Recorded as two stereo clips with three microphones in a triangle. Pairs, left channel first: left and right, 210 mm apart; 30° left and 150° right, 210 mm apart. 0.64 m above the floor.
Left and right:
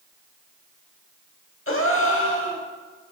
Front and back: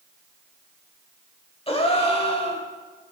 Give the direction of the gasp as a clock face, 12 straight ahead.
9 o'clock.